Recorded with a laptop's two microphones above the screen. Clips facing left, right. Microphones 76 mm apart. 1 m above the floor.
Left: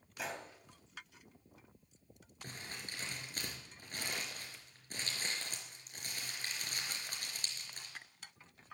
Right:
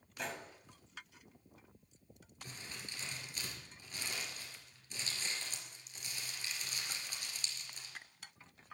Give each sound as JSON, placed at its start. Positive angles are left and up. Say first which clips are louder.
{"t": 0.2, "sound": "a gunshot", "louder": "even", "side_deg": 5, "distance_m": 2.0}
{"t": 2.4, "sound": "crumpling", "louder": "left 2 dB", "side_deg": 45, "distance_m": 4.5}